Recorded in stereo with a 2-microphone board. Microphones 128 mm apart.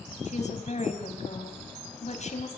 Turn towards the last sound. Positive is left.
turn(degrees=65)  # may be behind; listen again after turning